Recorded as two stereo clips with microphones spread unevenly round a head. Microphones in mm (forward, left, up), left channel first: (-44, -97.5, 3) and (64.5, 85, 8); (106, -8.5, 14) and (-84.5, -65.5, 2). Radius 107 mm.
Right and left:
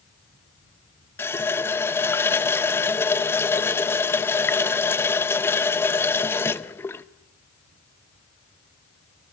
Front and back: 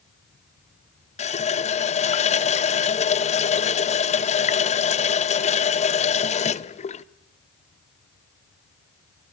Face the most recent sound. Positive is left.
turn(degrees=-40)